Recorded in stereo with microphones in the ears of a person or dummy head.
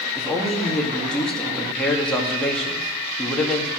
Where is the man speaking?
5° left (ahead or behind), 1.8 m.